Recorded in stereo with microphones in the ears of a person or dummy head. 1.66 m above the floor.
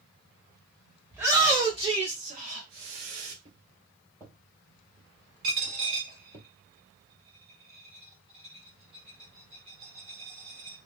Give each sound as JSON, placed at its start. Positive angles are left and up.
{"t": 1.1, "sound": "a shout", "side_deg": -10, "distance_m": 1.2}
{"t": 3.5, "sound": "footsteps", "side_deg": 10, "distance_m": 1.7}
{"t": 5.4, "sound": "a dropped coin", "side_deg": -30, "distance_m": 1.2}